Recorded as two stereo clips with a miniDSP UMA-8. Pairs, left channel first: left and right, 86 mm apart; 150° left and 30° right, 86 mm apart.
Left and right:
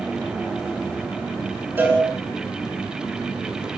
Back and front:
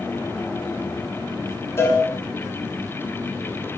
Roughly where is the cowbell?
Behind right.